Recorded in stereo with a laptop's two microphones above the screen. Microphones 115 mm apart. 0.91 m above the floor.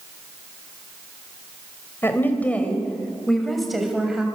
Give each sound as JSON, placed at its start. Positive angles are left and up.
{"t": 2.0, "sound": "a woman speaking", "side_deg": 20, "distance_m": 4.5}